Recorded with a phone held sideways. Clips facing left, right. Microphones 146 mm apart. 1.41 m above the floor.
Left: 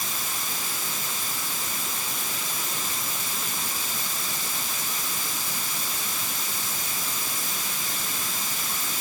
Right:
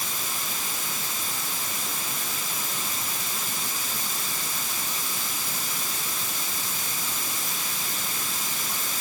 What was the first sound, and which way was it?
Only background noise.